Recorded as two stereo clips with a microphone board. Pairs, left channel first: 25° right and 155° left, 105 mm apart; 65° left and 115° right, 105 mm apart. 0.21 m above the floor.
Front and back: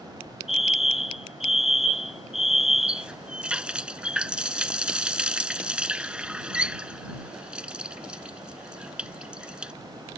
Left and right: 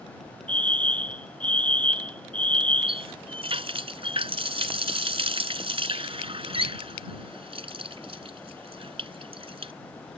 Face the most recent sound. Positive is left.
turn(degrees=-125)